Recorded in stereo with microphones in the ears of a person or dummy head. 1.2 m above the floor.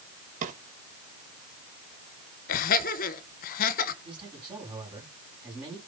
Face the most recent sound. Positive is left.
turn(degrees=-10)  # may be behind; listen again after turning